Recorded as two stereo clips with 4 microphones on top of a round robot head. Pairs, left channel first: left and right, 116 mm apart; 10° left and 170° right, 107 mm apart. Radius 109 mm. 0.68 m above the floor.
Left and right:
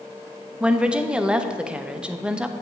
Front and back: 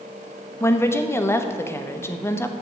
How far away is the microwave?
I don't hear a microwave.